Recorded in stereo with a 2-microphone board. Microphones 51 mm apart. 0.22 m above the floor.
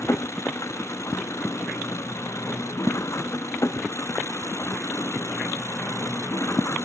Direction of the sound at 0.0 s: 70° left (ahead or behind).